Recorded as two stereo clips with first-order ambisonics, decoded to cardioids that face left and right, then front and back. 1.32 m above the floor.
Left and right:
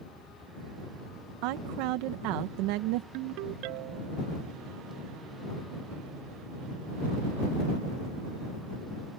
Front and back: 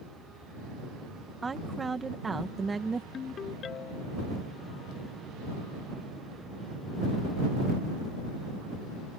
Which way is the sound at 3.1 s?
65° right.